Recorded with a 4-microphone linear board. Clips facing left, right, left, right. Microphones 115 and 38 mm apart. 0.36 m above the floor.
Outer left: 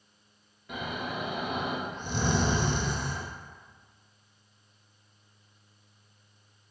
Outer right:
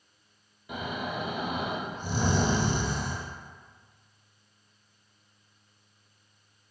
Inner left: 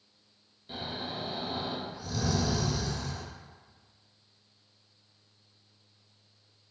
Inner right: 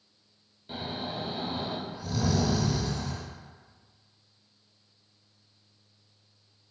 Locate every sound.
0.7 s snoring: 10° right (ahead or behind), 0.8 m